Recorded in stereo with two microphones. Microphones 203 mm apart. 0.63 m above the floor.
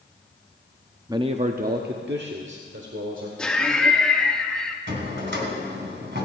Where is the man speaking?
15° right (ahead or behind), 0.6 m; by 3.3 s 70° right (ahead or behind), 1.9 m.